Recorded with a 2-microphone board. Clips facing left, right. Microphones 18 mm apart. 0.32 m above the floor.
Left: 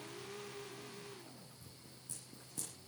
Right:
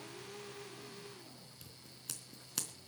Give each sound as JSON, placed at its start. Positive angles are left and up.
{"t": 1.6, "sound": "scissors", "side_deg": -70, "distance_m": 3.5}